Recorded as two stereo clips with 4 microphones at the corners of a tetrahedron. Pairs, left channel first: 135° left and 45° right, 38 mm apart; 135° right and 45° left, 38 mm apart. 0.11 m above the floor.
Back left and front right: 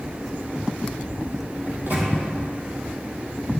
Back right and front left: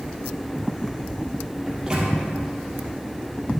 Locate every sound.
1.7 s a microwave: 25° right, 3 m